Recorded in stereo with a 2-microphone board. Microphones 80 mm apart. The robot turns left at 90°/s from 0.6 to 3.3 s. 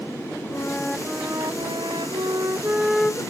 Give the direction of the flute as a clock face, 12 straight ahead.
11 o'clock.